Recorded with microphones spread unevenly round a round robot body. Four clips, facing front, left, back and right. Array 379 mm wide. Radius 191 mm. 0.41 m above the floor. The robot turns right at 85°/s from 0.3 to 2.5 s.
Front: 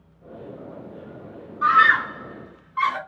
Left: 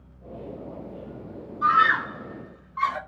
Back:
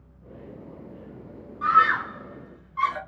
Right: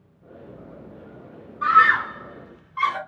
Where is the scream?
125° right, 1.6 m; by 3.0 s 50° right, 1.6 m.